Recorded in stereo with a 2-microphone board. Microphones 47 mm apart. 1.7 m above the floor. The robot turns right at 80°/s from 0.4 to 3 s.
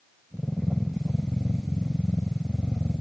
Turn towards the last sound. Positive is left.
No sound to turn to.